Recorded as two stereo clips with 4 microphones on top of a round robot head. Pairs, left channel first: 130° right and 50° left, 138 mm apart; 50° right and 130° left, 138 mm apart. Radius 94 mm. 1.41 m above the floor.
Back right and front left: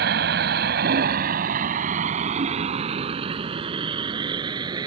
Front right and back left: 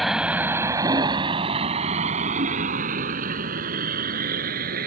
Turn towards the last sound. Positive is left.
turn(degrees=110)